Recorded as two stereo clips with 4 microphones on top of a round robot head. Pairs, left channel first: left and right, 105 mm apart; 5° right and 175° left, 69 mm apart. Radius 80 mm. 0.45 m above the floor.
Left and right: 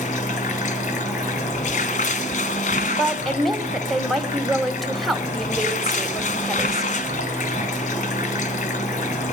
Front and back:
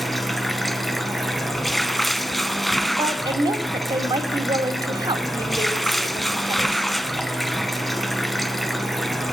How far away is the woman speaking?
About 2.5 m.